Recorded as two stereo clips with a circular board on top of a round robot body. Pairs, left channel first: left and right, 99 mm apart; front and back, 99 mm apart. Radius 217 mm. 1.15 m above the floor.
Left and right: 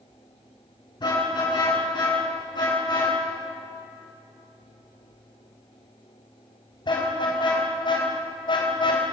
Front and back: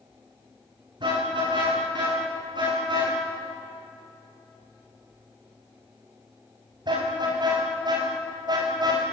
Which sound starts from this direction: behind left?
A car horn, at 1.0 s.